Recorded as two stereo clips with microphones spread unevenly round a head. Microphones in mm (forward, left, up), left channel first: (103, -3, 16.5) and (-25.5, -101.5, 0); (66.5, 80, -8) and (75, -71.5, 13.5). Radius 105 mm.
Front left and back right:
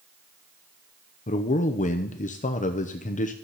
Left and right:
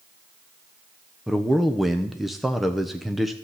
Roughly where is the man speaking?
Ahead.